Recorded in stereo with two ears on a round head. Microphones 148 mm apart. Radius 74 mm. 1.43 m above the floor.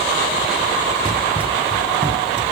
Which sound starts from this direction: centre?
Running footsteps, at 1.1 s.